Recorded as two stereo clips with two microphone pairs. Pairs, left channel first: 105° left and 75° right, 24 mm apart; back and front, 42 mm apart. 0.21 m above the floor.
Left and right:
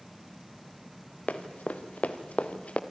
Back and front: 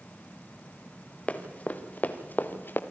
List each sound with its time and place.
1.3 s running footsteps: 120° left, 2.5 m; by 2.8 s 140° left, 1.9 m